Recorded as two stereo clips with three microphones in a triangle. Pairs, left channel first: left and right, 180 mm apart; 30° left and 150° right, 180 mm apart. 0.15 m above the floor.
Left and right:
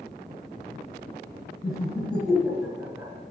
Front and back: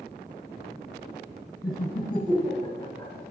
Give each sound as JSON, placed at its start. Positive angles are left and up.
{"t": 1.6, "sound": "laughter", "azimuth_deg": 65, "distance_m": 1.3}